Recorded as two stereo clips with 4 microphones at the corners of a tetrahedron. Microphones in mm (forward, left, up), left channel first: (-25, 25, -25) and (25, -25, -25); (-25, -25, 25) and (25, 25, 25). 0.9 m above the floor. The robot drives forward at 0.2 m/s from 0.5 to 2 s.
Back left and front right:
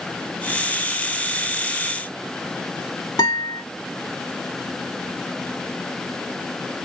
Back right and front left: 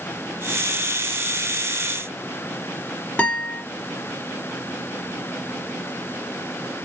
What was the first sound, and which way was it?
A guitar, 155° left.